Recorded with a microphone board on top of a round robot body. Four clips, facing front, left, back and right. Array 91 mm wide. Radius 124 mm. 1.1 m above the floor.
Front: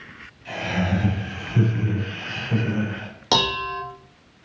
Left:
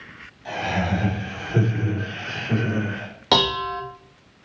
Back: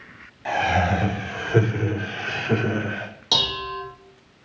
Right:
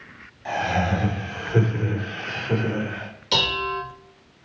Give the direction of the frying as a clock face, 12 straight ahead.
No frying in this recording.